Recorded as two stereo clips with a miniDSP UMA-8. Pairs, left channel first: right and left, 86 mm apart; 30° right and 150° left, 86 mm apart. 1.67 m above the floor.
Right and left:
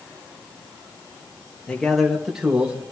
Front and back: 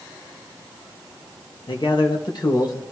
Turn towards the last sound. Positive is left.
turn(degrees=20)